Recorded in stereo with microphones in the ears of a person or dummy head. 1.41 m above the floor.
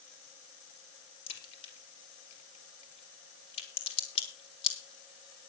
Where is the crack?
35° left (ahead or behind), 4 m.